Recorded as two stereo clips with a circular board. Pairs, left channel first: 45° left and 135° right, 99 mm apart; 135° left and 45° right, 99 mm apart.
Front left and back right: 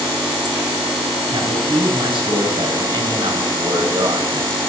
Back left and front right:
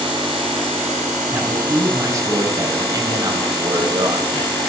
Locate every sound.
1.3 s a man speaking: 105° right, 4 m; by 4.6 s 85° right, 2.5 m